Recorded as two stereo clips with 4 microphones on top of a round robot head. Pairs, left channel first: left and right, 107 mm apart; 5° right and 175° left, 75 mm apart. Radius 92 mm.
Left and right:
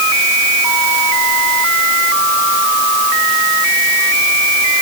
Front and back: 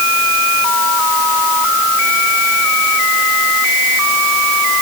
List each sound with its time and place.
Only background noise.